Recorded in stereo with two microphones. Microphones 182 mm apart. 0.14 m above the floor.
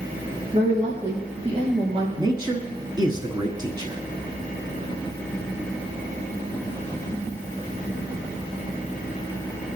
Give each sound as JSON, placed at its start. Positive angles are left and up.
{"t": 0.5, "sound": "a woman speaking", "side_deg": -45, "distance_m": 3.5}
{"t": 2.2, "sound": "a man speaking", "side_deg": -25, "distance_m": 1.1}